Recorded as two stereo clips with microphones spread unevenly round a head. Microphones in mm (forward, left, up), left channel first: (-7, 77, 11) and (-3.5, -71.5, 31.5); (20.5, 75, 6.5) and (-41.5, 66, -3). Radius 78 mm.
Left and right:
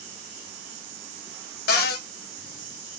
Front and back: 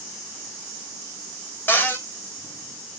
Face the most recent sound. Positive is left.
turn(degrees=65)